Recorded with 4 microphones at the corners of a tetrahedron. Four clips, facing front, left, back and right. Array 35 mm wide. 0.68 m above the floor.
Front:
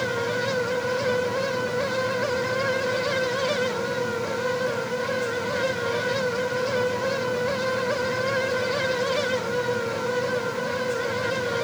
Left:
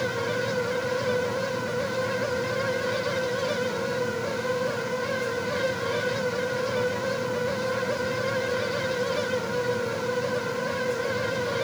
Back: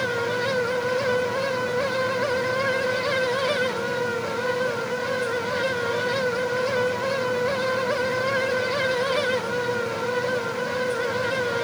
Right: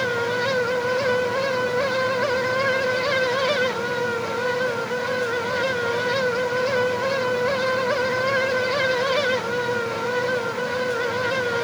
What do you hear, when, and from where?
Only background noise.